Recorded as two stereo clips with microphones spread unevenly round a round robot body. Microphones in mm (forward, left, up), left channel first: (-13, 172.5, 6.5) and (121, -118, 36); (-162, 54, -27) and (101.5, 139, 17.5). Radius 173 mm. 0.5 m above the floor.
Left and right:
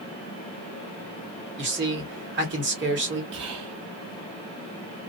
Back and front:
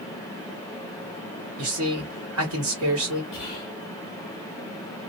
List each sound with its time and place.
1.6 s a man speaking: 20° right, 1.8 m
3.3 s whispering: 80° right, 0.8 m